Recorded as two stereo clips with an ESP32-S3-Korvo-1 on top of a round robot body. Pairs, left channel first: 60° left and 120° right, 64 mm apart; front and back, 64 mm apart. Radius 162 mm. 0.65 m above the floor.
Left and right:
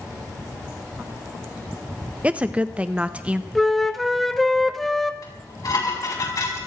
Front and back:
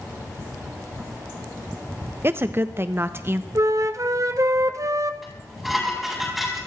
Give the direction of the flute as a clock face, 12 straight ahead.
7 o'clock.